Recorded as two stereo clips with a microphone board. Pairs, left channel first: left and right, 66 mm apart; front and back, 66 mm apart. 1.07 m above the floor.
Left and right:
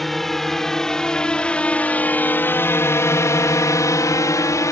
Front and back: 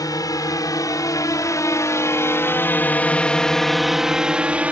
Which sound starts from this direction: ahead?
A drone, at 0.0 s.